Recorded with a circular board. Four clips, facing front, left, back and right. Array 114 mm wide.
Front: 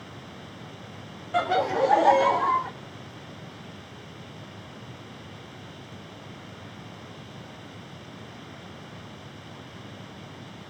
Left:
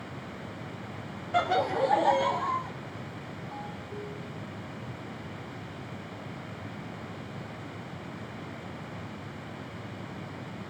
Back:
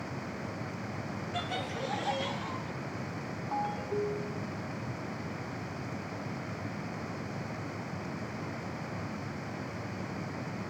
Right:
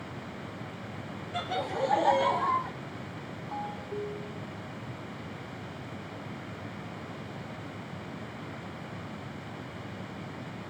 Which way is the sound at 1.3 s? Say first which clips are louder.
Left 6 dB, front 15 dB; 40° left.